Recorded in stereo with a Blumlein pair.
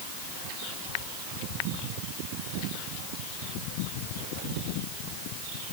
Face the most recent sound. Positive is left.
No sound to turn to.